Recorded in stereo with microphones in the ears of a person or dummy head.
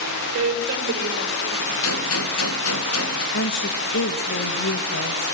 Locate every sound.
0.3 s a woman speaking: 70° right (ahead or behind), 4.5 m; by 1.7 s 55° right (ahead or behind), 5.5 m
1.8 s a gunshot: 75° left (ahead or behind), 1.5 m
3.3 s a woman speaking: 60° left (ahead or behind), 1.7 m